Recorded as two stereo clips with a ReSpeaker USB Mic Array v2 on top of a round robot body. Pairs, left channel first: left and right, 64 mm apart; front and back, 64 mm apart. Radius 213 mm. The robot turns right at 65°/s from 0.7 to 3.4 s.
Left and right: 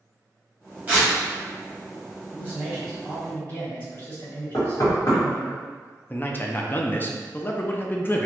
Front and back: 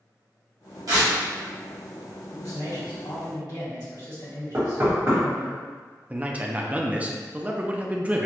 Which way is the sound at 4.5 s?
125° left.